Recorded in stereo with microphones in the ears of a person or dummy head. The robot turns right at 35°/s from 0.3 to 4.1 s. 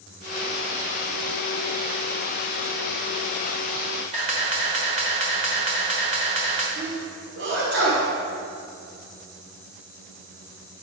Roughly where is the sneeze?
Right.